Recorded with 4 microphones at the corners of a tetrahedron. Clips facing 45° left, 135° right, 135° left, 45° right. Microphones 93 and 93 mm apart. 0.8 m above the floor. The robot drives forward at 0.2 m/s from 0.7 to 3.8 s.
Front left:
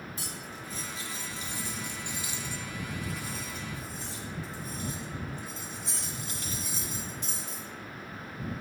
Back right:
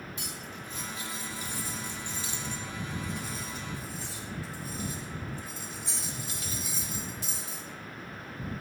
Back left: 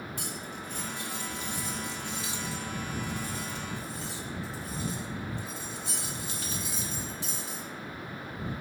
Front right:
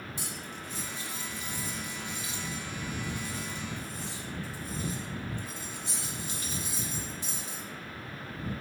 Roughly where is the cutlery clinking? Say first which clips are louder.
Even, back left 2 dB; left.